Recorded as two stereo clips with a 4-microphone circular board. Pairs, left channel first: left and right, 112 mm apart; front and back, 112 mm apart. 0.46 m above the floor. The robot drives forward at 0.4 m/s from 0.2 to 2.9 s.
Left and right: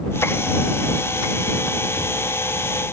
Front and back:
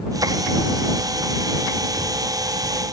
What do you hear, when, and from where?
Only background noise.